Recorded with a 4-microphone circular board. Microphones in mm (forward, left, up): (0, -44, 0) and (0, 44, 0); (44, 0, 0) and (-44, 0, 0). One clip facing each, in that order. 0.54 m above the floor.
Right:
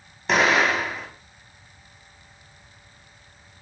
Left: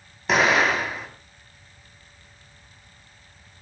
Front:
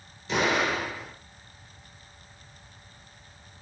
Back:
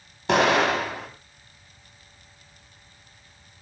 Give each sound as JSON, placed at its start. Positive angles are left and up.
{"t": 0.3, "sound": "an explosion", "azimuth_deg": 180, "distance_m": 5.0}